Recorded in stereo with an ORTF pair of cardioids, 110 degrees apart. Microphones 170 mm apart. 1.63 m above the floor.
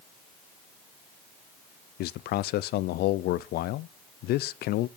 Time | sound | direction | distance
2.0 | a man speaking | 65° left | 0.5 m